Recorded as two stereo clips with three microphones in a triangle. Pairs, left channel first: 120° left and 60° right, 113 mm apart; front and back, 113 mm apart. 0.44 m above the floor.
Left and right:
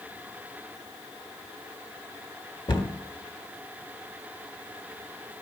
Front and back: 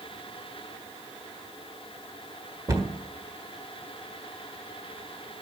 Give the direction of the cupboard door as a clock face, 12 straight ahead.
7 o'clock.